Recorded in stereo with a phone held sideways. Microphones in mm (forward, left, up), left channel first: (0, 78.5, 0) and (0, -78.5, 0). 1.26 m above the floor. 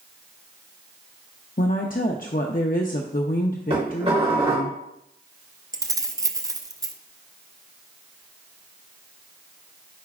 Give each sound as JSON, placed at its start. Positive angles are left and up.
{"t": 1.6, "sound": "a woman speaking", "side_deg": 55, "distance_m": 0.6}
{"t": 3.7, "sound": "dishes clattering", "side_deg": -40, "distance_m": 3.5}
{"t": 5.7, "sound": "keys jangling", "side_deg": -20, "distance_m": 0.5}